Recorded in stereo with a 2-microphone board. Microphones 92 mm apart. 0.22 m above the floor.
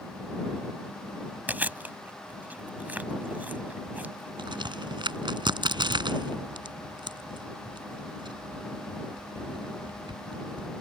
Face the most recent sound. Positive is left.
turn(degrees=-60)  # may be behind; listen again after turning